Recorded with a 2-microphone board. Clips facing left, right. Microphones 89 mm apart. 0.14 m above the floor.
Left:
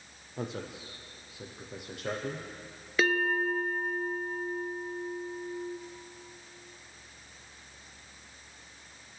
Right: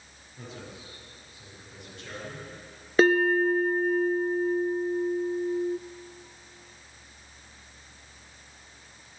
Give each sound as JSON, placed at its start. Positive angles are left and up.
{"t": 0.4, "sound": "a man speaking", "side_deg": 75, "distance_m": 5.0}
{"t": 3.0, "sound": "a bell", "side_deg": -40, "distance_m": 1.1}